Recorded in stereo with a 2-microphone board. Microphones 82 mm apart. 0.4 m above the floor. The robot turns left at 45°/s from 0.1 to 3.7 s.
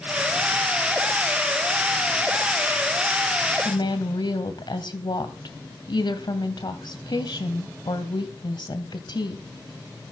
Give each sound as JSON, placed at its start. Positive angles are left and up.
{"t": 3.6, "sound": "a woman speaking", "side_deg": 65, "distance_m": 2.0}